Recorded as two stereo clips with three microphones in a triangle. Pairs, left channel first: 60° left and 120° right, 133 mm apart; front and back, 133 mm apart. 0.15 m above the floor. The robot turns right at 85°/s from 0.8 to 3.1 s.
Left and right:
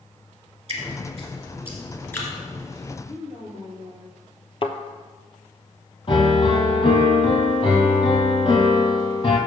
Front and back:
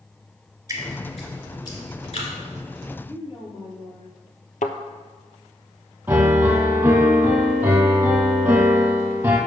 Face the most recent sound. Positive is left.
turn(degrees=105)